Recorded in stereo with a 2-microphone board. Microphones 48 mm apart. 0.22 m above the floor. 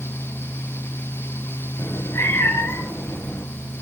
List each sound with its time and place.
1.8 s a cat meowing: 70° left (ahead or behind), 1.7 m